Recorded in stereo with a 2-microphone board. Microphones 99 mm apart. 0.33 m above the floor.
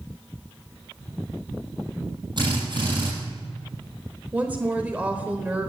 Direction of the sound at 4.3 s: 15° right (ahead or behind).